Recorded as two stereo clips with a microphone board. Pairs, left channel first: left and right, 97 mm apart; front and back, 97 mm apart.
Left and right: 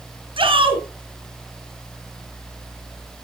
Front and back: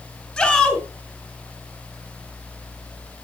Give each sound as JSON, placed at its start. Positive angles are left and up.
{"t": 0.4, "sound": "a shout", "azimuth_deg": -80, "distance_m": 3.0}